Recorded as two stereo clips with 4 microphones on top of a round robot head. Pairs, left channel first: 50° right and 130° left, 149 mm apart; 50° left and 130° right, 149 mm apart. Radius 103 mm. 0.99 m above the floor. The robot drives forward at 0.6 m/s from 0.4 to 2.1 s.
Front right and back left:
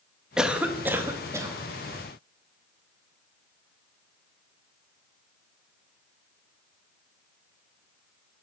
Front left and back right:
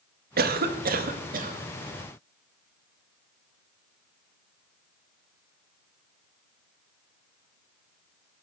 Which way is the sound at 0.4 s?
145° right.